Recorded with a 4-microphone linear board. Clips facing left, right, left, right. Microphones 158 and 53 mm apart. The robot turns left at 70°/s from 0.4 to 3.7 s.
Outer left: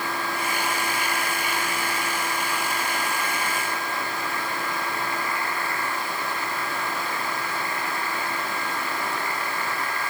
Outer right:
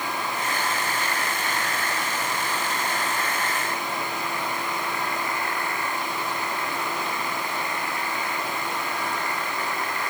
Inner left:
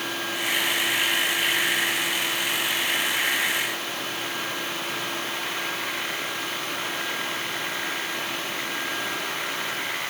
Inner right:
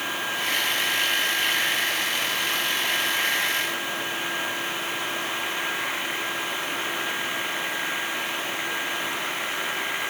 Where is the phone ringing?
No phone ringing in this recording.